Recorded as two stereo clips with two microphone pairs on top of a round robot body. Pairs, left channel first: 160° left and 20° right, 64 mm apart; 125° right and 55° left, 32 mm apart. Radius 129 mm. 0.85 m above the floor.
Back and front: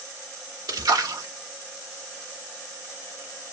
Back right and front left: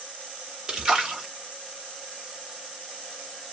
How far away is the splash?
About 2 m.